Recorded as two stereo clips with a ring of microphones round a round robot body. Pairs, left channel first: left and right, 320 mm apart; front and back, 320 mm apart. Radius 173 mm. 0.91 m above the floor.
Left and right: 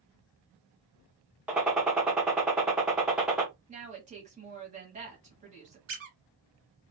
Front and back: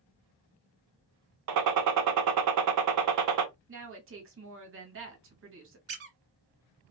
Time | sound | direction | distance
1.5 | a gunshot | 175° right | 0.6 m
3.7 | a woman speaking | 150° right | 1.0 m
5.9 | a squeak | 130° right | 1.1 m